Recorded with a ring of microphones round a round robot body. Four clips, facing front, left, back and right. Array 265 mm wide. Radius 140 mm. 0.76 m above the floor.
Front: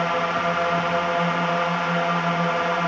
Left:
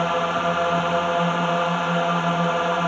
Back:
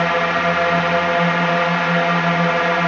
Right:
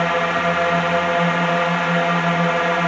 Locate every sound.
0.0 s a drone: 145° right